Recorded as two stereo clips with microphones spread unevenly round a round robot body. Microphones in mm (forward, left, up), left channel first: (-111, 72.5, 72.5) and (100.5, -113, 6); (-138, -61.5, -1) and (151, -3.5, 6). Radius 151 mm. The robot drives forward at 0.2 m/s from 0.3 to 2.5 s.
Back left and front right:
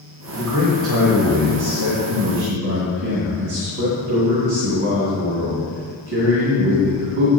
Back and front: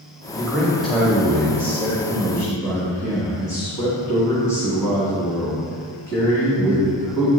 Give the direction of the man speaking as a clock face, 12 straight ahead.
3 o'clock.